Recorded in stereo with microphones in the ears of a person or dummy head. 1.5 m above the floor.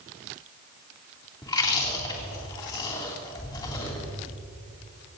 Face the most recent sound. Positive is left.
turn(degrees=30)  # may be behind; listen again after turning